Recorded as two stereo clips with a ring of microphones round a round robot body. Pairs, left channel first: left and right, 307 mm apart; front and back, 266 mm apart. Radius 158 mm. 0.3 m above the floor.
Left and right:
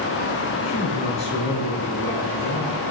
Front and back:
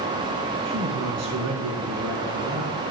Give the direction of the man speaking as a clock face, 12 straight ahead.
7 o'clock.